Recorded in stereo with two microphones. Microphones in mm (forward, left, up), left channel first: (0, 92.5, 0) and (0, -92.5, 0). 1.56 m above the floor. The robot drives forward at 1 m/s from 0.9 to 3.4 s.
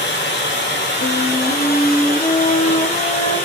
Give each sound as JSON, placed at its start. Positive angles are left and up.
{"t": 0.0, "sound": "running water", "side_deg": 70, "distance_m": 2.5}
{"t": 1.0, "sound": "a flute", "side_deg": 55, "distance_m": 2.5}